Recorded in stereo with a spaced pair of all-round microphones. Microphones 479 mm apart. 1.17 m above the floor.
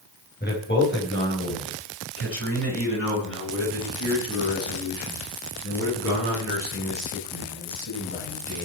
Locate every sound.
0.4 s a man speaking: 20° left (ahead or behind), 5 m; by 8.7 s 35° left (ahead or behind), 15.5 m